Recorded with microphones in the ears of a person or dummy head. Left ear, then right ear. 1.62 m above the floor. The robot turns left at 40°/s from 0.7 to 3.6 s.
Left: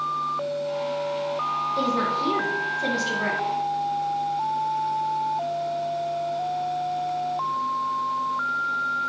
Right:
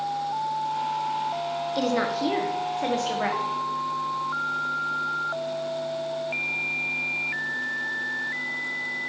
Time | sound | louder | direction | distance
1.8 | a woman speaking | right 1 dB | 90° right | 1.1 m